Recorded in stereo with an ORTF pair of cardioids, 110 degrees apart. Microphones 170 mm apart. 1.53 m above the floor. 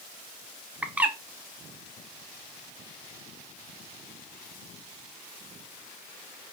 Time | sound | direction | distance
0.8 | a bird | 5° right | 0.7 m